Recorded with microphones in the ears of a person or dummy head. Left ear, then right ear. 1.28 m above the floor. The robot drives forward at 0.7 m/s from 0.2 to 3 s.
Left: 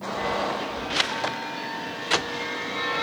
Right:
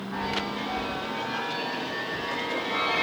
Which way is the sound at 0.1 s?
50° right (ahead or behind).